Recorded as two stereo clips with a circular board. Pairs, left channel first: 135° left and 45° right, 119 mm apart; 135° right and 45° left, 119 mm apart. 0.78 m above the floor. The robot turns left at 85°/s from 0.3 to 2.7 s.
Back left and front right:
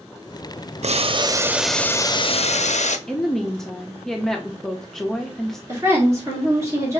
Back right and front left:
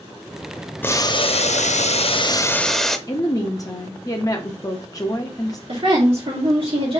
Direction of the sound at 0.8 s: 60° right.